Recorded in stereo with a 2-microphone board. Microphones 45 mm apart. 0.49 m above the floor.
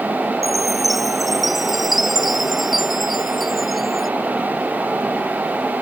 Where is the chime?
Centre (ahead or behind).